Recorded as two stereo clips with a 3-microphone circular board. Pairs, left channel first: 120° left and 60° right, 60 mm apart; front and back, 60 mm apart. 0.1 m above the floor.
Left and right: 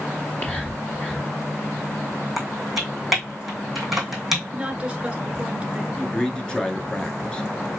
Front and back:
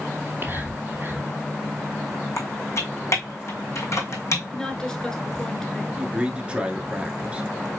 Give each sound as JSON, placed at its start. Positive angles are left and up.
{"t": 0.1, "sound": "whispering", "azimuth_deg": 155, "distance_m": 2.0}
{"t": 2.4, "sound": "typing on a keyboard", "azimuth_deg": 25, "distance_m": 2.5}
{"t": 4.5, "sound": "a woman speaking", "azimuth_deg": -55, "distance_m": 1.4}
{"t": 6.0, "sound": "a man speaking", "azimuth_deg": 165, "distance_m": 1.3}